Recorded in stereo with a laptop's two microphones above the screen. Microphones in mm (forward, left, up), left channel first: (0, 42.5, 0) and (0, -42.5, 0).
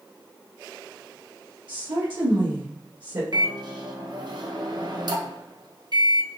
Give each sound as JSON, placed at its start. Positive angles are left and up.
{"t": 1.7, "sound": "a woman speaking", "side_deg": -65, "distance_m": 1.3}
{"t": 3.3, "sound": "a microwave", "side_deg": -55, "distance_m": 0.8}